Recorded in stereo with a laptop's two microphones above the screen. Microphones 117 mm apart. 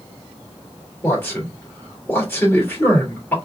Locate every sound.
1.0 s a man speaking: 15° left (ahead or behind), 2.5 m